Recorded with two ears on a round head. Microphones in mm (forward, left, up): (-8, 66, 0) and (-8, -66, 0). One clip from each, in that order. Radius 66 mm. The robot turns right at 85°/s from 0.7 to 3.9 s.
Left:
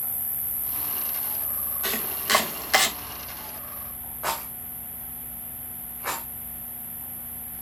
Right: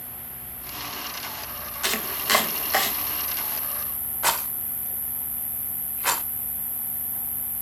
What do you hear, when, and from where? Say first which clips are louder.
0.0 s an insect: left 3 dB; 60° left, 2.5 m; by 7.6 s 30° right, 2.5 m
1.8 s chopping: right 3 dB; 40° right (ahead or behind), 1.4 m; by 2.9 s 40° left (ahead or behind), 1.4 m
4.2 s a rattle: right 4 dB; 70° right (ahead or behind), 1.8 m